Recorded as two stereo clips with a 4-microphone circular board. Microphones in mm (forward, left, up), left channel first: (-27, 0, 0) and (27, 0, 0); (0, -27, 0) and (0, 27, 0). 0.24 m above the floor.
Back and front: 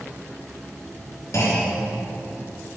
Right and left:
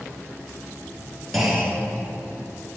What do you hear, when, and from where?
1.3 s a clunk: straight behind, 4 m